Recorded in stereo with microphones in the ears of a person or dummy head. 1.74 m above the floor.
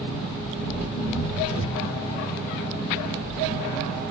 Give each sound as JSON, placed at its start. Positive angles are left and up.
{"t": 0.0, "sound": "an engine running", "side_deg": -35, "distance_m": 2.0}